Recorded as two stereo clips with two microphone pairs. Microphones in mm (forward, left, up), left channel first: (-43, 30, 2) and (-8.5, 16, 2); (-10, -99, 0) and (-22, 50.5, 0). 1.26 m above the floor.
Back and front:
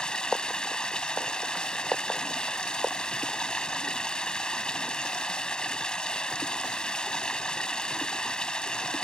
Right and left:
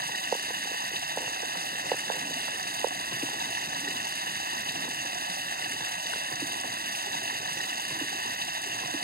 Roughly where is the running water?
Left.